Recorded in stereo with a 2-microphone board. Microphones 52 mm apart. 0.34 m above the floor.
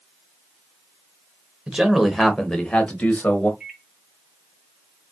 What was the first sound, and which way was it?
A man speaking, 15° right (ahead or behind).